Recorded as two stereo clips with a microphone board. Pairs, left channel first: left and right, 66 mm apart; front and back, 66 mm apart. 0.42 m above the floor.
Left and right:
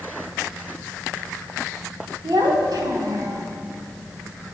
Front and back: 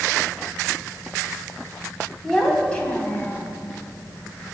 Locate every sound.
2.2 s a child speaking: 85° right, 2 m; by 3.5 s 55° right, 1.7 m